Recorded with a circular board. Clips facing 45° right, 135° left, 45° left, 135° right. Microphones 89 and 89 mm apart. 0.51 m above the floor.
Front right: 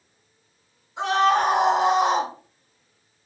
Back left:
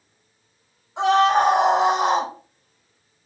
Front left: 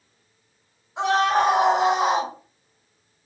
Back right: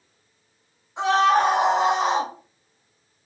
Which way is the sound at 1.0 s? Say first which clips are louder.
Back left 3 dB, back right 2 dB; 130° left.